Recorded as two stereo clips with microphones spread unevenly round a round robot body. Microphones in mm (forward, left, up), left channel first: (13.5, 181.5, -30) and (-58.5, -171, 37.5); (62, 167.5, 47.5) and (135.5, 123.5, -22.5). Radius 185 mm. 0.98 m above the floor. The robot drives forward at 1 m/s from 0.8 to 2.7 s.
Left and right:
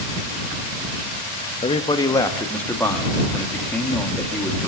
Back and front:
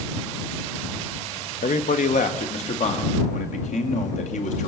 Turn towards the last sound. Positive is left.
turn(degrees=160)